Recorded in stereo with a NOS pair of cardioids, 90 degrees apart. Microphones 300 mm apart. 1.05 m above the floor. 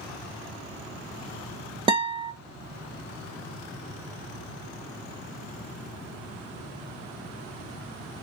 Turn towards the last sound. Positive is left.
turn(degrees=-15)